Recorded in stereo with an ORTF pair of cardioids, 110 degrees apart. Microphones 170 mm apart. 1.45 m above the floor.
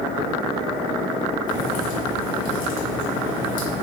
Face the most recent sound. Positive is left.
turn(degrees=55)